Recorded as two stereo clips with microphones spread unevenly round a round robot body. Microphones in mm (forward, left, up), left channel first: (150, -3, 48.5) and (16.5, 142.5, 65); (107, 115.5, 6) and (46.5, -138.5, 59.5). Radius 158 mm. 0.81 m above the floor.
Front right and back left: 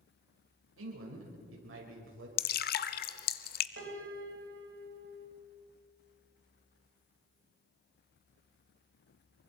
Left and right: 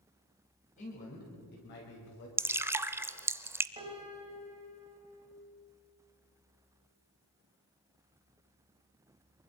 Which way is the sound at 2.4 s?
40° right.